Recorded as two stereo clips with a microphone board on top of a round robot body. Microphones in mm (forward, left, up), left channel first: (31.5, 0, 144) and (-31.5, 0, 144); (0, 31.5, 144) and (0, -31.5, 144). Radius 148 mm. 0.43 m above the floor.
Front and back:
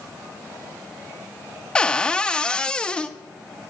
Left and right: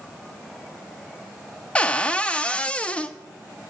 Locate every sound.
1.8 s a cupboard door: 50° left, 1.0 m